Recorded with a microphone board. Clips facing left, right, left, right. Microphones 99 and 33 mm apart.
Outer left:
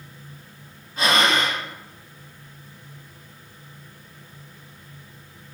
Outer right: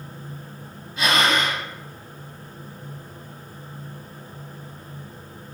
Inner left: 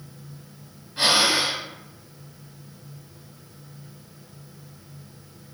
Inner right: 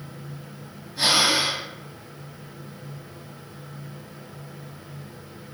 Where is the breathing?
40° left (ahead or behind), 1.0 m.